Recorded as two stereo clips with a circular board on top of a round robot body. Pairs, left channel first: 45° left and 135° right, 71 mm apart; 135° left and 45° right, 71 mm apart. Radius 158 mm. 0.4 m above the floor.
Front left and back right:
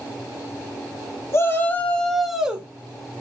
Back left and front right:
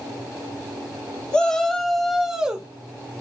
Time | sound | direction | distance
1.3 | a shout | 65° left | 1.1 m